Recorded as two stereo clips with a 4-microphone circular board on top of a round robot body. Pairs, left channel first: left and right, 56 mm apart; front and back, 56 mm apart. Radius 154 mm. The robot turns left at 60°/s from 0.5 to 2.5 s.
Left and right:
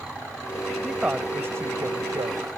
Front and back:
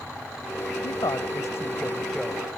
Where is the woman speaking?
Straight ahead; by 2.5 s 100° right.